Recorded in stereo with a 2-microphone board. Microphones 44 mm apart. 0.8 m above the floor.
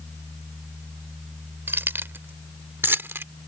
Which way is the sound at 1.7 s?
60° right (ahead or behind).